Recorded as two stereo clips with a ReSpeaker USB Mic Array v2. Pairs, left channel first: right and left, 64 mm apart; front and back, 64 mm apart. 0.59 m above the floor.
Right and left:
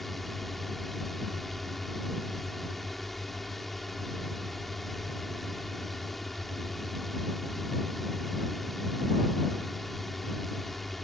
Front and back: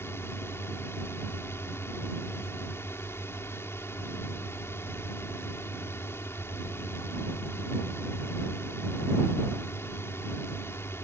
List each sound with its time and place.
0.0 s a drone: straight ahead